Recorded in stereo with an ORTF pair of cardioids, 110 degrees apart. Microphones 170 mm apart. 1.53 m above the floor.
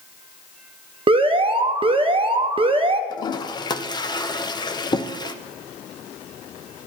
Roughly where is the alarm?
Ahead right.